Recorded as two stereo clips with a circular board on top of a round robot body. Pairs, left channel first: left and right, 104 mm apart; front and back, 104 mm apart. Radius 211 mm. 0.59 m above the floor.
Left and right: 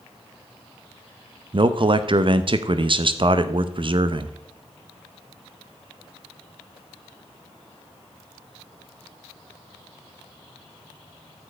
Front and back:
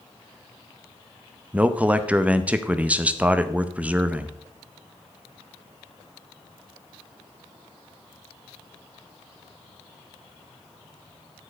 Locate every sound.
1.5 s a man speaking: 105° right, 0.8 m